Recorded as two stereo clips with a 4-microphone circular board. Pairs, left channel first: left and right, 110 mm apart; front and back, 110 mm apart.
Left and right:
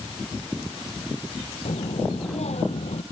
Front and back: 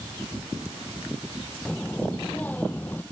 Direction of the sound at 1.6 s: 80° left.